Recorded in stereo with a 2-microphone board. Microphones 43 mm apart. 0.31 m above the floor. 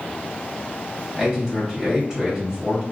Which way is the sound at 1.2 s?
20° right (ahead or behind).